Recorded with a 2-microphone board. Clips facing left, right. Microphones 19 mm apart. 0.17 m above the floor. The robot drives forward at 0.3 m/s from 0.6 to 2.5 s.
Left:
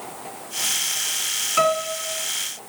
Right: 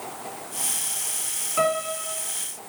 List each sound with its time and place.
1.6 s a piano: 35° left (ahead or behind), 1.4 m